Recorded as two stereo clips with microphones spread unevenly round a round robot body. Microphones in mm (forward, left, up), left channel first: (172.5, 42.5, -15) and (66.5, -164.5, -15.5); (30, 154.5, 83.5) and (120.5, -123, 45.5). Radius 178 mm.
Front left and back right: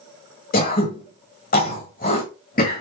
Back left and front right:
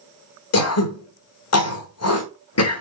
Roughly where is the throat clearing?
Left.